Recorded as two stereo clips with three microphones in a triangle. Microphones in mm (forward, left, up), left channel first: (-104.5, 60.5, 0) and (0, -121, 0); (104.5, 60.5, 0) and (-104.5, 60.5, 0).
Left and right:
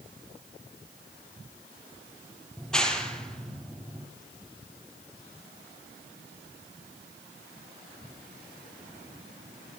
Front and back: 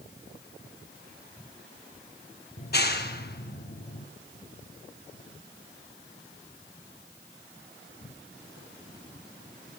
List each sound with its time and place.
2.6 s a clap: 35° left, 3 m